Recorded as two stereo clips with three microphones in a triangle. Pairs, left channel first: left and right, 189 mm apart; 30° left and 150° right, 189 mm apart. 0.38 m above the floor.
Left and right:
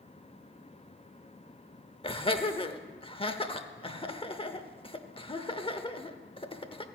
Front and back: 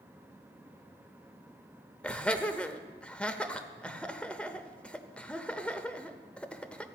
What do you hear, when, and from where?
2.0 s laughter: 105° left, 0.8 m